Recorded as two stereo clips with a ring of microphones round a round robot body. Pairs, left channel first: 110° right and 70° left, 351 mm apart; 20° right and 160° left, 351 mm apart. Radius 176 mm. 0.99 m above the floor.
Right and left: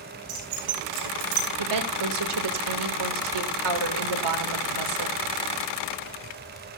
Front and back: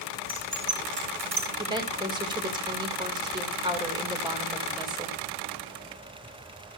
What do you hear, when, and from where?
0.3 s keys jangling: 90° left, 6.5 m; by 1.5 s 80° left, 7 m
1.6 s a woman speaking: 80° left, 3 m